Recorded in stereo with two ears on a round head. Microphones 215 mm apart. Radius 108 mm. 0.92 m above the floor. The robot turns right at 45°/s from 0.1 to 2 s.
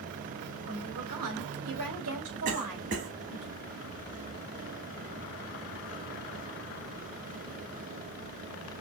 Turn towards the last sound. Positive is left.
turn(degrees=-50)  # may be behind; listen again after turning